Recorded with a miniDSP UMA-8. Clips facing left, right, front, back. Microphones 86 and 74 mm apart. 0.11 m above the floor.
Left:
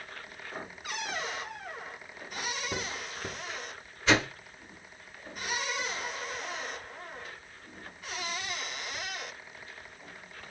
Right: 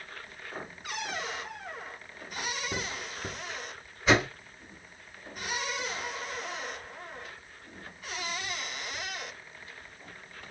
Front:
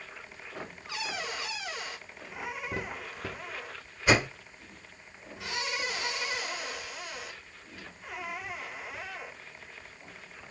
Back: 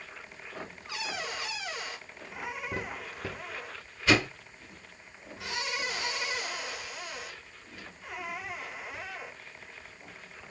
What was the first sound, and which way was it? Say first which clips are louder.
A whoosh: right 2 dB, front 1 dB; 20° right.